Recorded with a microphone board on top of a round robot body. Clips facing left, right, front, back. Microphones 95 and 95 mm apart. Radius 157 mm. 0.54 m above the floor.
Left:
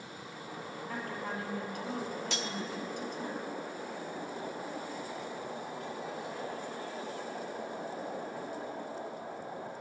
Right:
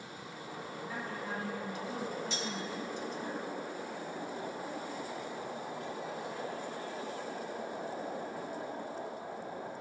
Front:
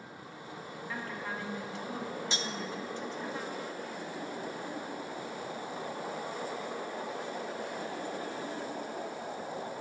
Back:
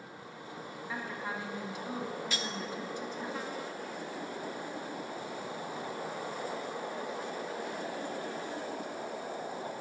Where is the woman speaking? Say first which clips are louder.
Left 2 dB, back 1 dB; 105° left, 1.8 m.